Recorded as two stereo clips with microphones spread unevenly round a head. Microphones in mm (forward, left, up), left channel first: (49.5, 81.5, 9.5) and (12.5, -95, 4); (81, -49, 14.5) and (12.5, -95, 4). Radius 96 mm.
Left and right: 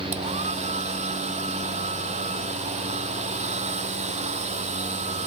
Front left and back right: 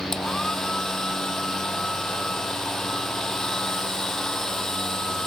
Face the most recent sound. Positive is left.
turn(degrees=-50)